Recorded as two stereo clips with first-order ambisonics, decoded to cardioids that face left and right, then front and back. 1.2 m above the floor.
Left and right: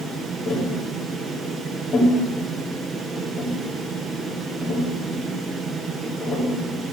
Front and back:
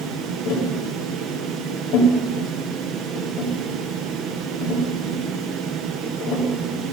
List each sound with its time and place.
0.5 s tapping: 10° left, 3 m